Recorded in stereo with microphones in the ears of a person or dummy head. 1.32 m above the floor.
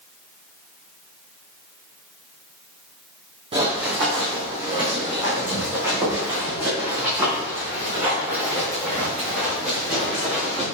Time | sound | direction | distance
3.5 | running footsteps | 30° right (ahead or behind) | 2.5 m